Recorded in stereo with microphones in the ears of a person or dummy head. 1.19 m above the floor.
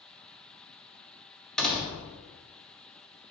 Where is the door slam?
5° left (ahead or behind), 0.6 m.